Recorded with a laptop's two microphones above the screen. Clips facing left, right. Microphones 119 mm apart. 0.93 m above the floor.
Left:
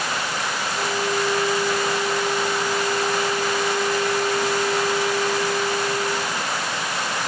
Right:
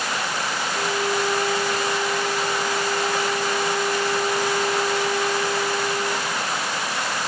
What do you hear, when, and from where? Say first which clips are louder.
0.7 s a violin: even; 50° right (ahead or behind), 3.5 m